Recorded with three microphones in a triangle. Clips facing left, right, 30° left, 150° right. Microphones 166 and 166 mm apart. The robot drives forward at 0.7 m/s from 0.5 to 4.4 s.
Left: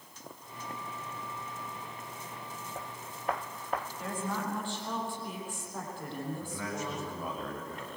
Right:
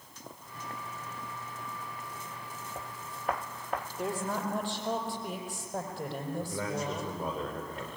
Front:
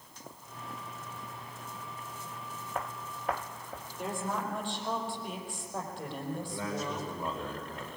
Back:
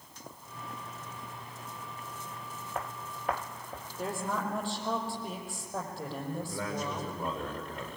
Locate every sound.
4.0 s a woman speaking: 100° right, 5.5 m
6.4 s a man speaking: 110° right, 8.5 m